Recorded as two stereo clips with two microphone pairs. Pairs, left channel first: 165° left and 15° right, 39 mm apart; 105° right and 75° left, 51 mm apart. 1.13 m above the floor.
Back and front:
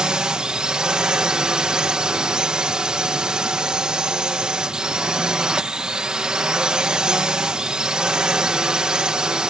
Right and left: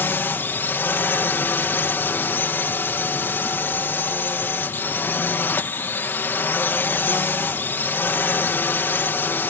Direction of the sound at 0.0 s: 80° right.